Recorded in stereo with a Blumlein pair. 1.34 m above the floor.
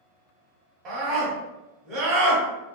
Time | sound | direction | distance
0.8 | a scream | 30° right | 1.4 m